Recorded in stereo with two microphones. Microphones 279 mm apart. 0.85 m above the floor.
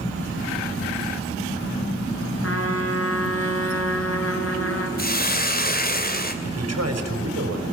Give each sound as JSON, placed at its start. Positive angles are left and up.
{"t": 2.4, "sound": "a trumpet", "side_deg": 55, "distance_m": 3.0}
{"t": 5.0, "sound": "a hiss", "side_deg": 35, "distance_m": 2.5}
{"t": 6.4, "sound": "a man speaking", "side_deg": -65, "distance_m": 4.5}